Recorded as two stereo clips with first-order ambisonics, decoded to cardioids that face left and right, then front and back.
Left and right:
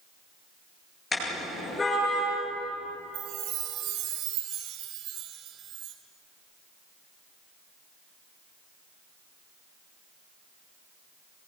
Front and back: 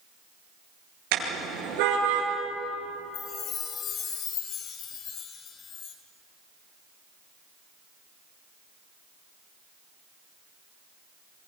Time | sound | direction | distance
1.1 | a car horn | 165° left | 8.5 m
3.1 | a chime | 55° right | 2.5 m